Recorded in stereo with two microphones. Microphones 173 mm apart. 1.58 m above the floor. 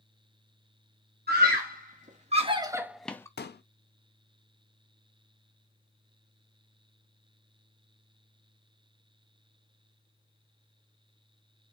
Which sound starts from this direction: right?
A scream, at 1.3 s.